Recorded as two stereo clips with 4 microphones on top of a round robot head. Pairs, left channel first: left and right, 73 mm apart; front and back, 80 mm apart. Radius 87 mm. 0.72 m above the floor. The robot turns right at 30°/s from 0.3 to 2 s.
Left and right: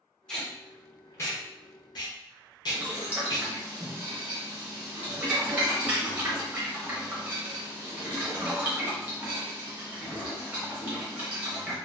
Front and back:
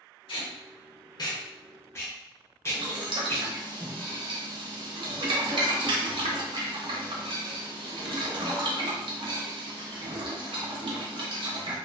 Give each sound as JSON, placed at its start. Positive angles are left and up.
{"t": 0.3, "sound": "tape being pulled", "azimuth_deg": 10, "distance_m": 1.0}
{"t": 2.7, "sound": "boiling", "azimuth_deg": -165, "distance_m": 0.8}